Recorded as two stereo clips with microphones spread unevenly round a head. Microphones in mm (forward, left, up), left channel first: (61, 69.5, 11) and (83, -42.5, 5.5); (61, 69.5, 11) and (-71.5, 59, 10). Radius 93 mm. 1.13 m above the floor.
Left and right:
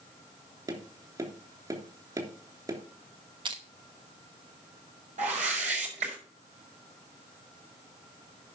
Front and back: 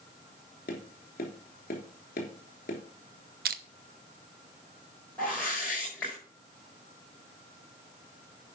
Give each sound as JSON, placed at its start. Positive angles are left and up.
{"t": 0.7, "sound": "tapping", "azimuth_deg": -25, "distance_m": 3.0}
{"t": 3.5, "sound": "crushing", "azimuth_deg": -145, "distance_m": 0.7}
{"t": 5.2, "sound": "a whoosh", "azimuth_deg": -75, "distance_m": 6.5}